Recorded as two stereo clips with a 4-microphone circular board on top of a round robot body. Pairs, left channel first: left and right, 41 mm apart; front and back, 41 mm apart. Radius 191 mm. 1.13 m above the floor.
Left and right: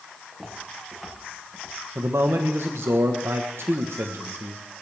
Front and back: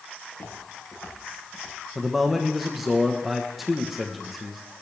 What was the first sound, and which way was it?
Footsteps, 5° right.